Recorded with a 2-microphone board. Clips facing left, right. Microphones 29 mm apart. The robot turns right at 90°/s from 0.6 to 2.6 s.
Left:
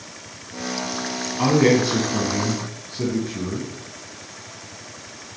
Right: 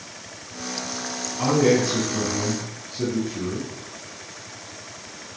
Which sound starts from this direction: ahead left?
A man speaking, at 1.4 s.